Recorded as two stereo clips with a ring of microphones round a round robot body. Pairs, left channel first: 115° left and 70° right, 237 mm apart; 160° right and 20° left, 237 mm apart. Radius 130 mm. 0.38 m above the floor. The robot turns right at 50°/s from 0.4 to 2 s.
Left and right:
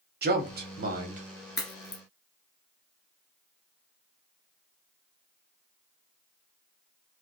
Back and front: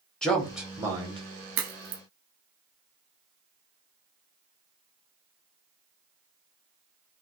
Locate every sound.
0.2 s a man speaking: 70° right, 1.3 m; by 1.2 s 30° right, 1.3 m
1.6 s a crack: 35° left, 1.2 m; by 2.0 s 55° left, 1.2 m